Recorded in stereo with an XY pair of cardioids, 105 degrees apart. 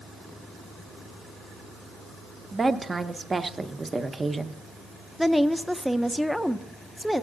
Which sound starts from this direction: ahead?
A woman speaking, at 5.2 s.